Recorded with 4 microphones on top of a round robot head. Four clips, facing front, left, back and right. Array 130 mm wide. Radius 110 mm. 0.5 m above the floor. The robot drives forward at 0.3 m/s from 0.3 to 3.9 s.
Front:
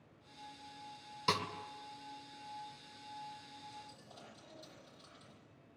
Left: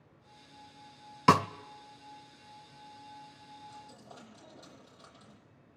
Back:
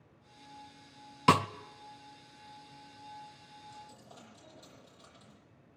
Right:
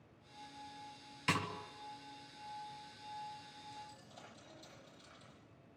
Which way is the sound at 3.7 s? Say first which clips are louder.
Left 2 dB, back 2 dB; 95° left.